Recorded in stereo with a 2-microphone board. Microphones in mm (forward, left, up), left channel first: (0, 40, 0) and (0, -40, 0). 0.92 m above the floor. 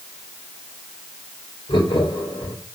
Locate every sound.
1.7 s laughter: 80° left, 4.5 m